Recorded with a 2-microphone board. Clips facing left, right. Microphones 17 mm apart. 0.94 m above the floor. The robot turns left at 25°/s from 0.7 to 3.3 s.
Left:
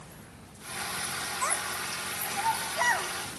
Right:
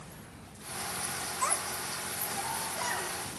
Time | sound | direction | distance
1.4 | a child speaking | 10° left (ahead or behind) | 0.8 m